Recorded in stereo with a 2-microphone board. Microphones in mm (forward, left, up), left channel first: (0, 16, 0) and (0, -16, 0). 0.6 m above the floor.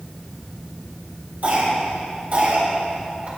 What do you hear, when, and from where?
1.4 s a cough: 50° right (ahead or behind), 3.5 m